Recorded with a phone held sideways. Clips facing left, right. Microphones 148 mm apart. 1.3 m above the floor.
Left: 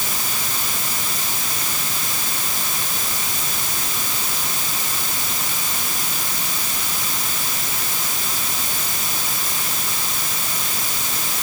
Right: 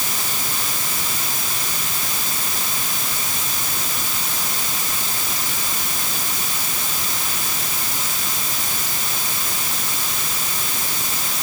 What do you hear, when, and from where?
Only background noise.